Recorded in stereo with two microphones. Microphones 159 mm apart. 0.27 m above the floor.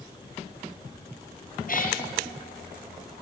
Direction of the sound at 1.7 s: 55° left (ahead or behind).